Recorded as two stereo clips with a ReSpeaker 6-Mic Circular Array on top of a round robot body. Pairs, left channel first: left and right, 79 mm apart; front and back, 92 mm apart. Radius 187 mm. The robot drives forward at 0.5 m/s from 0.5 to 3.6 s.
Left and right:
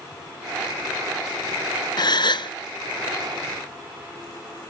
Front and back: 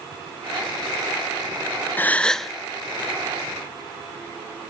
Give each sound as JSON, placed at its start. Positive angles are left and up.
{"t": 2.0, "sound": "a gasp", "azimuth_deg": 70, "distance_m": 0.8}